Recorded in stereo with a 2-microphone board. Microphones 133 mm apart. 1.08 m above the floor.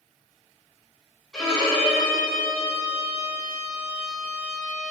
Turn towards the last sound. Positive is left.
turn(degrees=5)  # may be behind; listen again after turning